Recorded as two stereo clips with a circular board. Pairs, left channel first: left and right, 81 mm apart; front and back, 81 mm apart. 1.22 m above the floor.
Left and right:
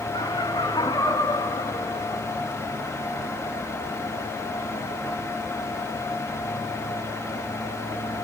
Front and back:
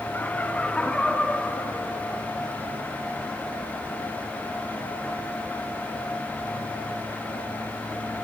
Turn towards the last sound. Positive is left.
turn(degrees=85)